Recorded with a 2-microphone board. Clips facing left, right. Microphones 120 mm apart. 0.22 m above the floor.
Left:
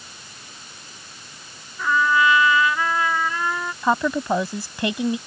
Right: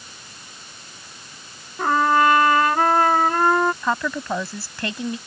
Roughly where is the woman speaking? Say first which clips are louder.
Left 3 dB; centre.